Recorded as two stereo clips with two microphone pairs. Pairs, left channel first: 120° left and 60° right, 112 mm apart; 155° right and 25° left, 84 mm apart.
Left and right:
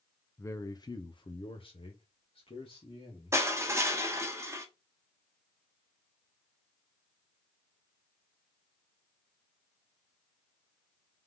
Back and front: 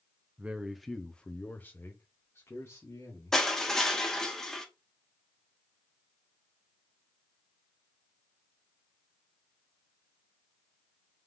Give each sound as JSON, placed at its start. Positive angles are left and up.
{"t": 0.4, "sound": "a man speaking", "azimuth_deg": 80, "distance_m": 0.5}
{"t": 3.3, "sound": "crushing", "azimuth_deg": -80, "distance_m": 0.8}